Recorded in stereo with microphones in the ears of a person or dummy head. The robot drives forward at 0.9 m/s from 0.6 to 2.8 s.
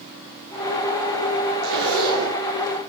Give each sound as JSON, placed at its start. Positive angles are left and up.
{"t": 1.6, "sound": "a zipper", "side_deg": -60, "distance_m": 6.5}